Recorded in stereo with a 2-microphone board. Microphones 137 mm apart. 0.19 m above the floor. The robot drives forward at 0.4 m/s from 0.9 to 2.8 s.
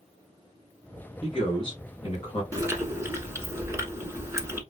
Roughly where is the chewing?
Right.